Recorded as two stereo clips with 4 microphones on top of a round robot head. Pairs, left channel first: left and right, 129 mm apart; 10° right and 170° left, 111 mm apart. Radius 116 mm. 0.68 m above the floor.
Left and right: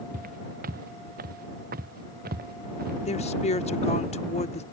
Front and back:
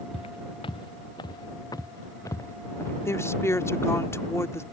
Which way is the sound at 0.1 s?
60° right.